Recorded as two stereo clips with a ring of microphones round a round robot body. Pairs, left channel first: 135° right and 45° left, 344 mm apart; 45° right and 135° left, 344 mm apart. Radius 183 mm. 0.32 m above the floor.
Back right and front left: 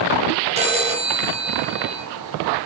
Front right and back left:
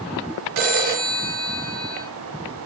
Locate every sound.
0.6 s a phone ringing: 115° left, 3 m